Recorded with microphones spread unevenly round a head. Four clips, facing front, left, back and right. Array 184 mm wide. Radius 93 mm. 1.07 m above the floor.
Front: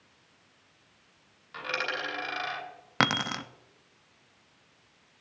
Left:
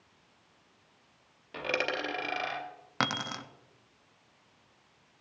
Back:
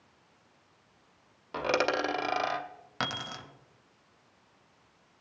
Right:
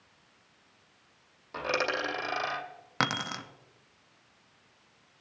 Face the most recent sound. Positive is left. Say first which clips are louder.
# right 1 dB, front 8 dB
turn(degrees=-5)